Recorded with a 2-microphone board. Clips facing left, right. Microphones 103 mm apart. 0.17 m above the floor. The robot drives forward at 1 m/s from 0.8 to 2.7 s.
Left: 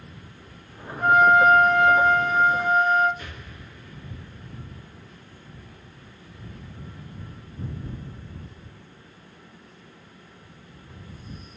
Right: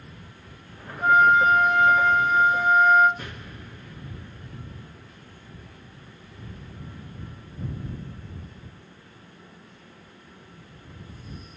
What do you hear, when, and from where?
1.0 s a flute: 50° left (ahead or behind), 2.5 m; by 3.1 s 40° left (ahead or behind), 2.5 m
3.2 s an explosion: 60° right (ahead or behind), 3.5 m